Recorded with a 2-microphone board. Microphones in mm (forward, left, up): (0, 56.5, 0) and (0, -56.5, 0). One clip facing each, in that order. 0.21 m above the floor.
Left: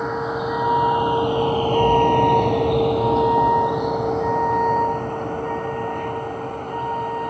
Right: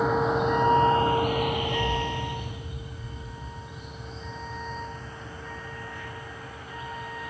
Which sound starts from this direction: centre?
A vehicle, at 0.0 s.